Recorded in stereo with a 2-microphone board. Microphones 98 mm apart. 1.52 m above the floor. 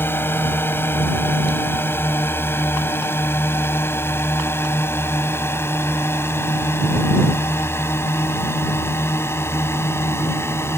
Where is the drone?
25° left (ahead or behind).